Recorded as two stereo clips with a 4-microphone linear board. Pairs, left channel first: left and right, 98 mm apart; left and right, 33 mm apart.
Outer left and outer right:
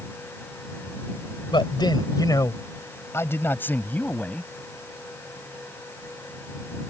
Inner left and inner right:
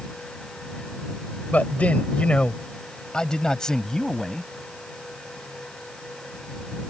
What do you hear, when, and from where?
1.5 s a man speaking: 55° left (ahead or behind); by 4.5 s 10° left (ahead or behind)